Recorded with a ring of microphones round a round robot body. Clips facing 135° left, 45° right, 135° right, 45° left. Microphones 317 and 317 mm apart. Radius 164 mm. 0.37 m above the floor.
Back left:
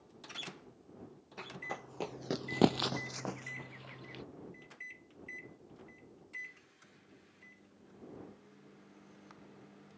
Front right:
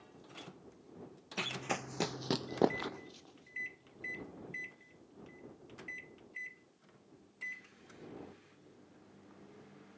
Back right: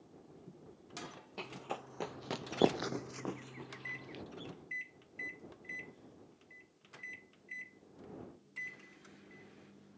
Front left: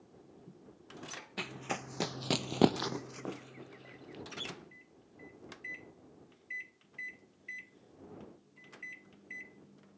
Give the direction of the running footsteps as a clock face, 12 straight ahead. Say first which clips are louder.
Front right 6 dB, front left 3 dB; 12 o'clock.